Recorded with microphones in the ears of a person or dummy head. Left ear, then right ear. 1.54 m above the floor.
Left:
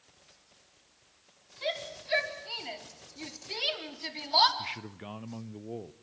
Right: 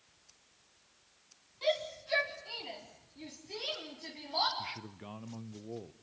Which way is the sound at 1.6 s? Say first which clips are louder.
Right 2 dB; 10° left (ahead or behind).